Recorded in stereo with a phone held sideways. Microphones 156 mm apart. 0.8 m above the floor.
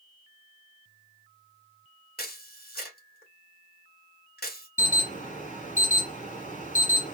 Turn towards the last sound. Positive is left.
turn(degrees=55)  # may be behind; listen again after turning